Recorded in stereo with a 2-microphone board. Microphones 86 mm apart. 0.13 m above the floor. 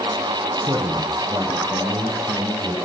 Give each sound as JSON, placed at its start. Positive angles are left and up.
{"t": 0.6, "sound": "a man speaking", "side_deg": -45, "distance_m": 2.5}